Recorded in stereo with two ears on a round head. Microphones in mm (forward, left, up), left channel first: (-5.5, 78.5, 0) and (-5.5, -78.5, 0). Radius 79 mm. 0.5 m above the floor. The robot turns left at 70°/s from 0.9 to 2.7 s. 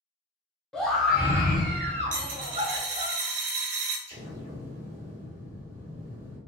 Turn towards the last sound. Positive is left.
turn(degrees=-40)  # may be behind; listen again after turning